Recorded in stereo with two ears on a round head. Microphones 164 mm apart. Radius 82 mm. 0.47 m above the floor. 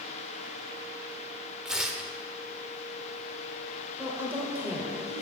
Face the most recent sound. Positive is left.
turn(degrees=-10)  # may be behind; listen again after turning